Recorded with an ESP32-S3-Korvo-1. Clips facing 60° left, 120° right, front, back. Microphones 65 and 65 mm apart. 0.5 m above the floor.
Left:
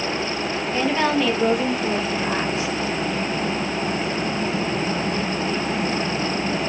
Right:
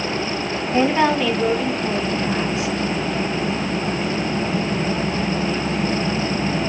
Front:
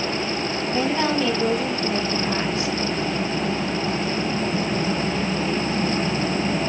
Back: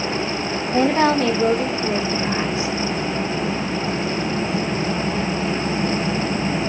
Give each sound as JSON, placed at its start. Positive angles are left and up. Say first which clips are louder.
{"t": 0.7, "sound": "a woman speaking", "louder": "right 4 dB, back 6 dB", "azimuth_deg": 180, "distance_m": 1.1}